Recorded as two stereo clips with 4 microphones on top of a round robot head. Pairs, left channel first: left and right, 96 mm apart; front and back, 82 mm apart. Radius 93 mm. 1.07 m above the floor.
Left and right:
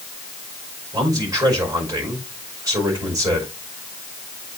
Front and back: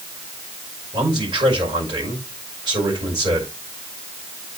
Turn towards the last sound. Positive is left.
turn(degrees=-140)